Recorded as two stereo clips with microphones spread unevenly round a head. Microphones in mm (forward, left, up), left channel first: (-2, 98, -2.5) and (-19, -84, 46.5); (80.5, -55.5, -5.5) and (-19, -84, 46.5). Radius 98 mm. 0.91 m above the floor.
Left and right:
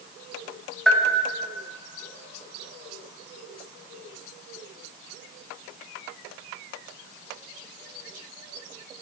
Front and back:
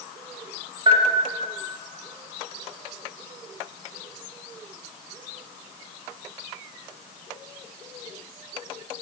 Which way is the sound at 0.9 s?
140° left.